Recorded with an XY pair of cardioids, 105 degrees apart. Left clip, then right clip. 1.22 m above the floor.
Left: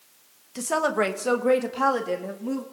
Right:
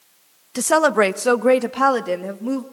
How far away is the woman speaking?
About 1.1 m.